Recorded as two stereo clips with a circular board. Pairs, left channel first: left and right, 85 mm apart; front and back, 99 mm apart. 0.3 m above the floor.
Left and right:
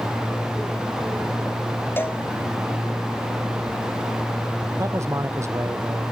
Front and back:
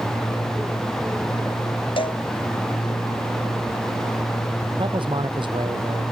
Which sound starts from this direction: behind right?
A man speaking, at 4.8 s.